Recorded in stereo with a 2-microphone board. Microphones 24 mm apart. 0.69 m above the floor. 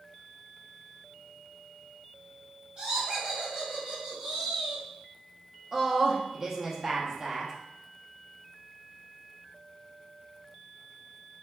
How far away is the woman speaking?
About 0.6 m.